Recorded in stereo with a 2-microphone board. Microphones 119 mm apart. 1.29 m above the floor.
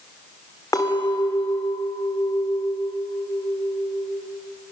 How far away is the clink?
About 2.5 m.